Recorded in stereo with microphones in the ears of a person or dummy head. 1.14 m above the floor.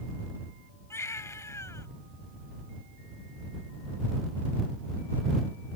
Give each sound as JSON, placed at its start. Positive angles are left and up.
{"t": 0.9, "sound": "a baby crying", "side_deg": 20}